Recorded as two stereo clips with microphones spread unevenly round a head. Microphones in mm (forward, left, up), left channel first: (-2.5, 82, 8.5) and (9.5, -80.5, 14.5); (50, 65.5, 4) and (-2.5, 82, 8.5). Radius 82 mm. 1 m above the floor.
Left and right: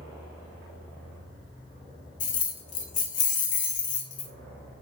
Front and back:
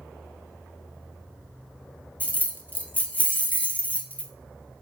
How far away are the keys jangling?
About 0.5 m.